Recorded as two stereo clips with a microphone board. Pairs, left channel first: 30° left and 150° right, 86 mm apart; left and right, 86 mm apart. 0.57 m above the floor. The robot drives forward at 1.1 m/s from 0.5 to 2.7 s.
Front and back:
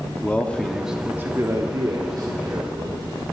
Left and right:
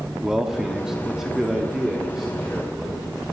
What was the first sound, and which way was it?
A man speaking, 15° right.